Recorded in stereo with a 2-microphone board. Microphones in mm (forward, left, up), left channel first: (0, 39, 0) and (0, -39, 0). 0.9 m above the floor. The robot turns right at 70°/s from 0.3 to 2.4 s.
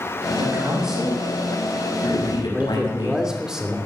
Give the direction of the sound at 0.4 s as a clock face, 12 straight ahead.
1 o'clock.